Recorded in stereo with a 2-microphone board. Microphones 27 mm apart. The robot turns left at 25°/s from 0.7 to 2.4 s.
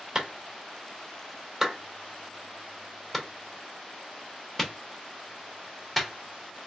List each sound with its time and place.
0.1 s a clap: 30° right (ahead or behind), 1.0 m; by 6.1 s 10° left (ahead or behind), 1.0 m